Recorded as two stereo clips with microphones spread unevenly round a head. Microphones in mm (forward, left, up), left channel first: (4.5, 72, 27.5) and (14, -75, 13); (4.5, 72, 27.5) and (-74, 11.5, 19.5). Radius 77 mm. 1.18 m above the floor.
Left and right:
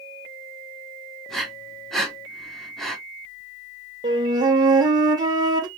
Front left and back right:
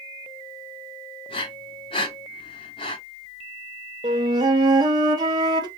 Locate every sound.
1.3 s breathing: 10° left, 1.0 m
4.0 s a flute: 140° right, 0.6 m